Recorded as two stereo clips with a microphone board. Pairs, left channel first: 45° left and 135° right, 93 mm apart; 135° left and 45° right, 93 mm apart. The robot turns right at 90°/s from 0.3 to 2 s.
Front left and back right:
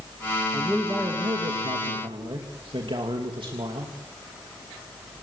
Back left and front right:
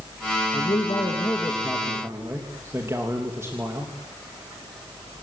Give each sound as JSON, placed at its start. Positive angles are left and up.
{"t": 0.5, "sound": "a man speaking", "azimuth_deg": 120, "distance_m": 3.0}